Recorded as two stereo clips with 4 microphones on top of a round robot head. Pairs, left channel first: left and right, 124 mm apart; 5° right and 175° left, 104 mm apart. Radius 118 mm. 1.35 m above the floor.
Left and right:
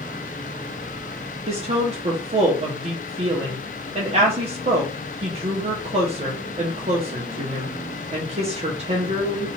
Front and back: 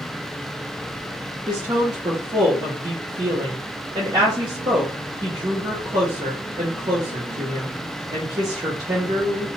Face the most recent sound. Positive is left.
turn(degrees=-130)